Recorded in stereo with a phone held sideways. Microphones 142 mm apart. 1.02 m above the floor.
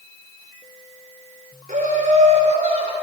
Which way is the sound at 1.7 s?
70° right (ahead or behind).